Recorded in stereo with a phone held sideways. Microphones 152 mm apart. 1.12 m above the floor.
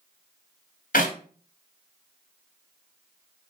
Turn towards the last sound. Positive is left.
turn(degrees=65)  # may be behind; listen again after turning